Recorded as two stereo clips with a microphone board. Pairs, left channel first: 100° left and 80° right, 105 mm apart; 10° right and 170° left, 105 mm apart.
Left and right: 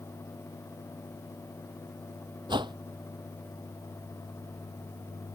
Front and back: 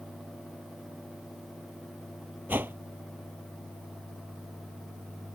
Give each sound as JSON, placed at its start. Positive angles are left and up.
{"t": 2.5, "sound": "a whoosh", "azimuth_deg": -120}